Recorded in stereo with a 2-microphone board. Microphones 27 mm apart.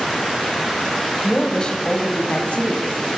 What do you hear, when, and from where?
1.2 s a woman speaking: 15° left (ahead or behind), 1.3 m; by 3.1 s 70° left (ahead or behind), 3 m